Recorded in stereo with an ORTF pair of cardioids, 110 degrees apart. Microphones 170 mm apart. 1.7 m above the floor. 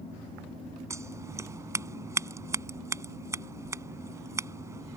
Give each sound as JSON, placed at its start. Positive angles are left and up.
{"t": 0.9, "sound": "scissors", "azimuth_deg": -15}